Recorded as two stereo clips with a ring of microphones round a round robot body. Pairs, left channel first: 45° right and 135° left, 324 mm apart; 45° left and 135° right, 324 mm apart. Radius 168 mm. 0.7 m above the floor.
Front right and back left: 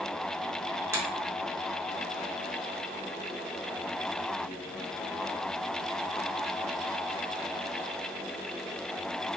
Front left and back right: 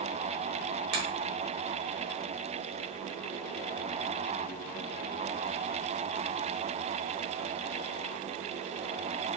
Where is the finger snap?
145° right, 1.7 m.